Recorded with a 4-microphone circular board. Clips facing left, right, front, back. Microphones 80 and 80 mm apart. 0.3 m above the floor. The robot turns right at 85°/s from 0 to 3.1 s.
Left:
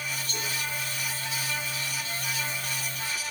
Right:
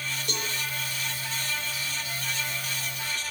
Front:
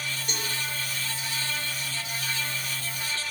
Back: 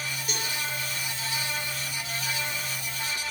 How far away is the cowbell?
About 4.5 m.